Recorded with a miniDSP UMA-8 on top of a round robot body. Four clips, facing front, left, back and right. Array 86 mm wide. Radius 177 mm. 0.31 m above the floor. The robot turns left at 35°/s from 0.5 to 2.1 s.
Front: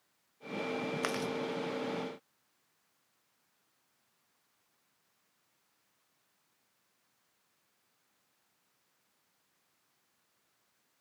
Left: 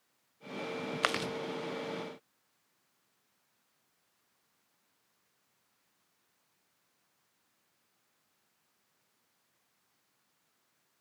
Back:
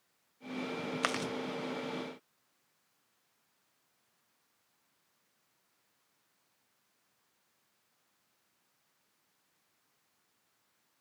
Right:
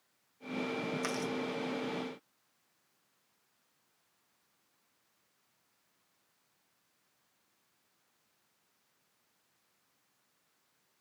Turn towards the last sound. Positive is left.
turn(degrees=75)